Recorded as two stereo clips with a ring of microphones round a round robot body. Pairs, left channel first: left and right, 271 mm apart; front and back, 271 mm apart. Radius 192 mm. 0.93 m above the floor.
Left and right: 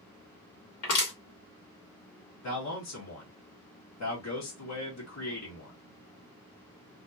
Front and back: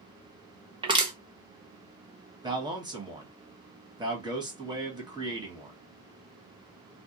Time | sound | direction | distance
0.8 | crushing | 105° left | 1.3 m
2.4 | a man speaking | 105° left | 1.6 m